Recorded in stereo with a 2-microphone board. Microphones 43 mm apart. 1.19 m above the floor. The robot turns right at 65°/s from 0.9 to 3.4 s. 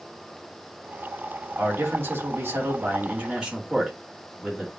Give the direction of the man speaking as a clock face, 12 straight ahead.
5 o'clock.